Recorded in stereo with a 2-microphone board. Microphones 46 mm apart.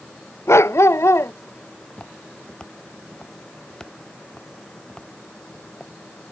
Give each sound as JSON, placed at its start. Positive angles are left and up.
{"t": 0.5, "sound": "a dog barking", "side_deg": 75}
{"t": 1.9, "sound": "footsteps", "side_deg": 20}